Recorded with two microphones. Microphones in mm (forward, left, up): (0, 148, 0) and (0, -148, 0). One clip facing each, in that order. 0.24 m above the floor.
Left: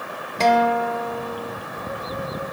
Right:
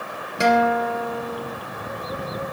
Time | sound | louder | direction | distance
0.4 | a guitar | even | 10° right (ahead or behind) | 0.6 m